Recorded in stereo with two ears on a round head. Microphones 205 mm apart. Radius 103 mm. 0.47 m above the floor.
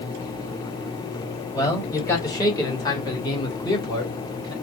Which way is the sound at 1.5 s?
15° left (ahead or behind).